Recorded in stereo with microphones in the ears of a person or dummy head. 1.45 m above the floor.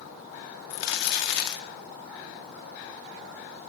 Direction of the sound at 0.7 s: 60° left (ahead or behind).